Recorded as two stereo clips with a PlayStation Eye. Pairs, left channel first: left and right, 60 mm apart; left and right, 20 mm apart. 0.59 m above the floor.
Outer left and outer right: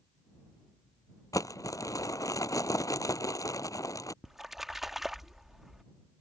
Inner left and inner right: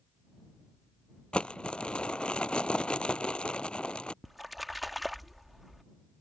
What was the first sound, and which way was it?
Crumpling, 80° left.